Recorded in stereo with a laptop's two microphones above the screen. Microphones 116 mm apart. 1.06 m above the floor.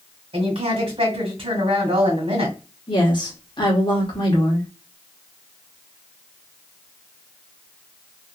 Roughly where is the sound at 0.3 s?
Right.